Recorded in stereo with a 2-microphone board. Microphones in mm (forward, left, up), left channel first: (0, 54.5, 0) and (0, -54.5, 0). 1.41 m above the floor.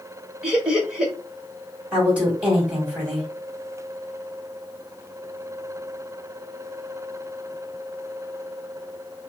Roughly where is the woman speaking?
Centre.